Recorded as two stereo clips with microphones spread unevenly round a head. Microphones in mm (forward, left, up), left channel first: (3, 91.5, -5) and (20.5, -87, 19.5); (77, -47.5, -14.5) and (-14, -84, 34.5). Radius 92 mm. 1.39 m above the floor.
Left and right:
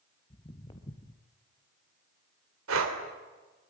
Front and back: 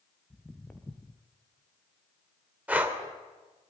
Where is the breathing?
90° right, 3 m.